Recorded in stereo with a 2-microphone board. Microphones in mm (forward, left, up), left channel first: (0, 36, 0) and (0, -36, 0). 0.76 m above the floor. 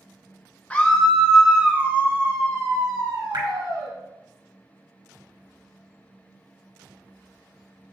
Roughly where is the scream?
Centre.